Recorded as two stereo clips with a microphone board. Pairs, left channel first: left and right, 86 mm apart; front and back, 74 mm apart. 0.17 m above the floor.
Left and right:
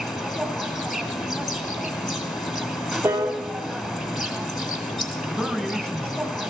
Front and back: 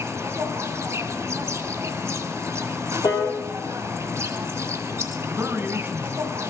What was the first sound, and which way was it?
An insect, straight behind.